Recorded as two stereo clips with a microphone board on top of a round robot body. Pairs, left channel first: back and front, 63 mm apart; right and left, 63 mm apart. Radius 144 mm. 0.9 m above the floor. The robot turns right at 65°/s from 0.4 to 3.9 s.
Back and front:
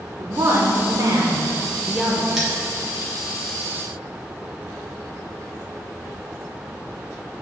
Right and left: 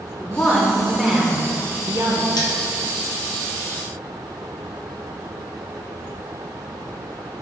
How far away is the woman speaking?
About 0.6 m.